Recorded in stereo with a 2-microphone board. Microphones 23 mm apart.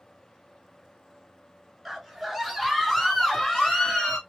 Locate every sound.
1.9 s a scream: 5° right (ahead or behind), 1.7 m; by 4.2 s 25° left (ahead or behind), 1.4 m